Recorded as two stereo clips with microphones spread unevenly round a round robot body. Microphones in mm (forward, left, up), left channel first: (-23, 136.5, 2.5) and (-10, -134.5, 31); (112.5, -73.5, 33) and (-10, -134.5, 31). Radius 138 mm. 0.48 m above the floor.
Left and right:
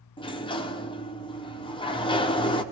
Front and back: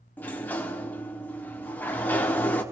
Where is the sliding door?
90° left, 1.0 m.